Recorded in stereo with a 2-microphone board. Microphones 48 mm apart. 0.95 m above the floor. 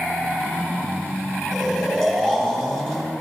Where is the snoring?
5° left (ahead or behind), 5 m.